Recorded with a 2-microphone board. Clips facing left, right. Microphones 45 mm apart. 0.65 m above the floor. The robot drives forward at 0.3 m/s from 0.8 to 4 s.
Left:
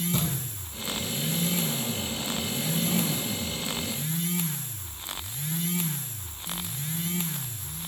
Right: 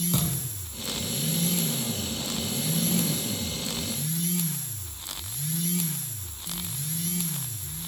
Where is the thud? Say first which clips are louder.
Even; 85° right, 6 m.